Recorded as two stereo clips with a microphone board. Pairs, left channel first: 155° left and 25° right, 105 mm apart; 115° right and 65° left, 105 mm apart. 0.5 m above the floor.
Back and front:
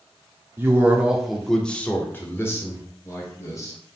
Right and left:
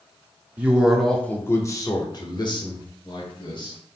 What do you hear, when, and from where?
0.6 s a man speaking: 10° left, 0.7 m; by 3.8 s 145° right, 1.8 m